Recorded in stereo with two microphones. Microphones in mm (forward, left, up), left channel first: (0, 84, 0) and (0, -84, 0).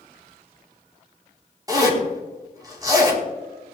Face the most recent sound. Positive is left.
turn(degrees=-20)  # may be behind; listen again after turning